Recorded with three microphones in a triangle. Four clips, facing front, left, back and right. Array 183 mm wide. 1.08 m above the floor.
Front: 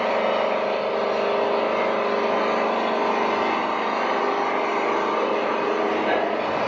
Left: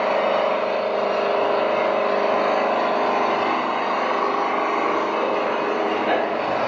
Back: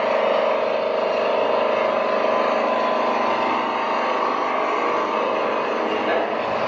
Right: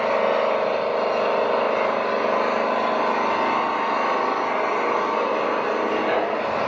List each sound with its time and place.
0.0 s an engine running: 100° left, 3.5 m